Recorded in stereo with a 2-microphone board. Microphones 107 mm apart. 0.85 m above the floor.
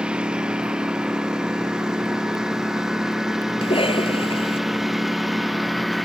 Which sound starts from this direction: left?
A cough, at 3.6 s.